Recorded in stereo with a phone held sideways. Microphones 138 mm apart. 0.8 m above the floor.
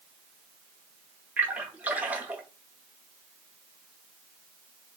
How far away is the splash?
About 0.9 m.